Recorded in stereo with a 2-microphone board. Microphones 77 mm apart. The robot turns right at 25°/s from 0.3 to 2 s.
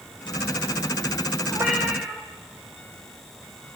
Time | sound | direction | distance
1.5 | a cat meowing | 40° right (ahead or behind) | 3 m